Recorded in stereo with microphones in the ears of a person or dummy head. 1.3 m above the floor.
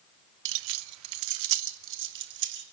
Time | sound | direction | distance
0.5 | keys jangling | 55° right (ahead or behind) | 0.7 m